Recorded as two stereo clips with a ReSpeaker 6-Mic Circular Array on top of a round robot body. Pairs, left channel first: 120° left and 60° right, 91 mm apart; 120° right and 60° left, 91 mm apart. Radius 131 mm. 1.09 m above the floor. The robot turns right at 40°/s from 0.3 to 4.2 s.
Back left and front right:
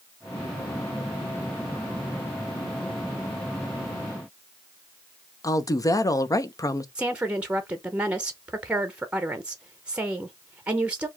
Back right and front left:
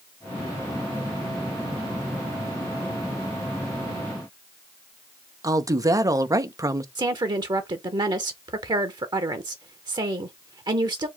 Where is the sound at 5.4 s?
90° left, 0.9 m.